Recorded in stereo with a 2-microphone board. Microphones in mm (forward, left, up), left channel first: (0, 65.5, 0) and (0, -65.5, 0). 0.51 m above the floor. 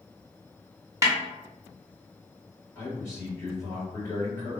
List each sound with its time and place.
1.0 s a snare drum: 25° right (ahead or behind), 0.6 m
2.8 s a man speaking: 20° left (ahead or behind), 1.9 m